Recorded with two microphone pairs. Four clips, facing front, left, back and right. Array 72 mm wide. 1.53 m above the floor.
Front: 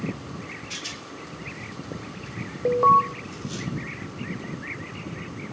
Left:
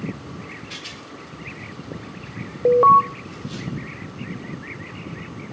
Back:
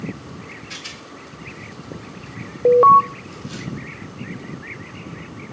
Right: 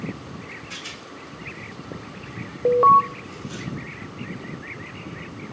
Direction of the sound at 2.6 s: 170° left.